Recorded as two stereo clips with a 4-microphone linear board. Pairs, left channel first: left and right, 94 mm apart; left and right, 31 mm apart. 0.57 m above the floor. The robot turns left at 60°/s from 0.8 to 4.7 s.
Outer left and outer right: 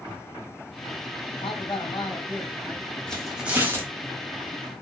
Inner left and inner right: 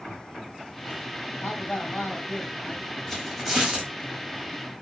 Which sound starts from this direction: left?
A man speaking, at 1.4 s.